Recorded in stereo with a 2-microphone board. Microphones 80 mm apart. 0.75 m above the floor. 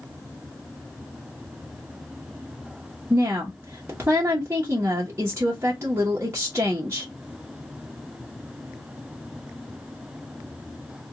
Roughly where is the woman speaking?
Right.